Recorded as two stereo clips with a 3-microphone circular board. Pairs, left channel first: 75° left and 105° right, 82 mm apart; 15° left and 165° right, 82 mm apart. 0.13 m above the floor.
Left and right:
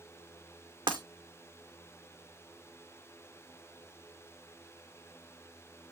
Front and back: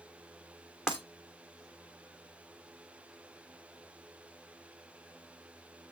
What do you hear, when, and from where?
0.9 s breaking glass: 85° right, 2.5 m